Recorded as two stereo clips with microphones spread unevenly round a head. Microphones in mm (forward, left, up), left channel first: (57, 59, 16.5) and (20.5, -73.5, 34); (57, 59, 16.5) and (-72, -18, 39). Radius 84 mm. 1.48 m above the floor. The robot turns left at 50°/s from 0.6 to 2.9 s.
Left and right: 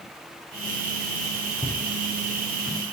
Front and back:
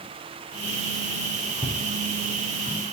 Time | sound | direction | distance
1.6 | footsteps | 140° left | 3.5 m